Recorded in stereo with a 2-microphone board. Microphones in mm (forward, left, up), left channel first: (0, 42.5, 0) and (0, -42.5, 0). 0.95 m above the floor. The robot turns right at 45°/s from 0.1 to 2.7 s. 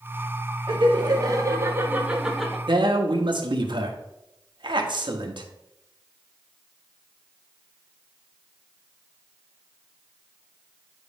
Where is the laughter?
80° right, 1.5 m; by 2.6 s 5° left, 1.5 m.